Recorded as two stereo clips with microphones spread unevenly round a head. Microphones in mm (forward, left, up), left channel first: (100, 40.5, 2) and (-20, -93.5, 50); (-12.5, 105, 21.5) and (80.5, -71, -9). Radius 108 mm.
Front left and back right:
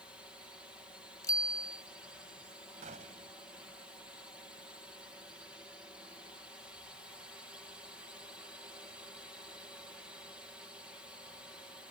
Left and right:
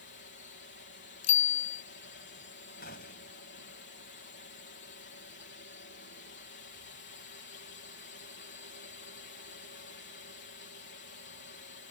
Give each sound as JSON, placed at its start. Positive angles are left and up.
{"t": 0.0, "sound": "a drone", "azimuth_deg": 130}
{"t": 1.2, "sound": "a bicycle bell", "azimuth_deg": 125}
{"t": 2.8, "sound": "a gunshot", "azimuth_deg": 170}